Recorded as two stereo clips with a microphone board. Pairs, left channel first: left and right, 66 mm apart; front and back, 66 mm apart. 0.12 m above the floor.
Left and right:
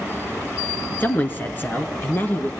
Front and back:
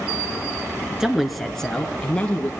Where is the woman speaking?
105° left, 1.2 m; by 2.5 s 50° left, 1.5 m.